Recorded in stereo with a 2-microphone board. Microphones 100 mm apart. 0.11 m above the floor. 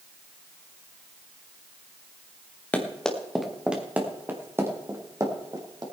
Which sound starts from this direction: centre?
Running footsteps, at 2.7 s.